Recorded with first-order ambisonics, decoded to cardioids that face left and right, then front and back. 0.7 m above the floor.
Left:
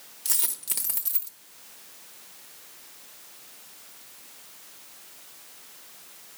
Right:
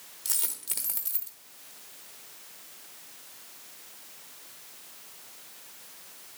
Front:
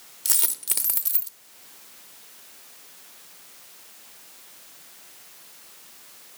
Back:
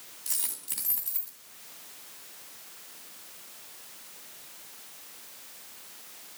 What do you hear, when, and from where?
0.2 s a dropped coin: 5° left, 1.1 m